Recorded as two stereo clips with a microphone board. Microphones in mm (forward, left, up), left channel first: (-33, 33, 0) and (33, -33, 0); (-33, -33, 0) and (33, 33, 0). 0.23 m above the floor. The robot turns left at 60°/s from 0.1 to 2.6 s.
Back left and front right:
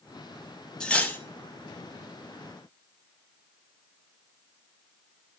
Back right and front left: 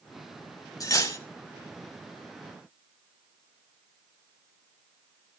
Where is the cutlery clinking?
150° right, 0.7 m; by 1.2 s 175° right, 0.7 m.